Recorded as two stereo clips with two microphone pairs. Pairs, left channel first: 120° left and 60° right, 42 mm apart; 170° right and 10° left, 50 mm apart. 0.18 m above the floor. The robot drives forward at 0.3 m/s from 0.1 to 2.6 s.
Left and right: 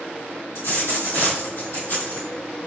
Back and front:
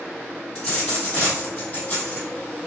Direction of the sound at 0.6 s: 120° left.